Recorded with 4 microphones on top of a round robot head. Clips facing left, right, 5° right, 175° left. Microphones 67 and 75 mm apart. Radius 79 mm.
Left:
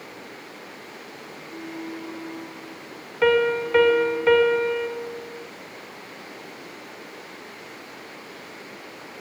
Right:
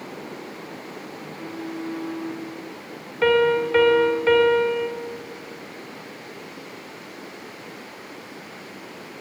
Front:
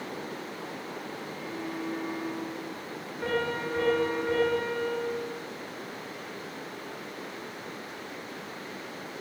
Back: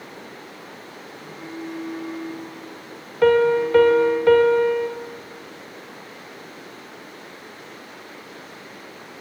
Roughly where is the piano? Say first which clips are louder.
Right 1 dB, back 14 dB; behind.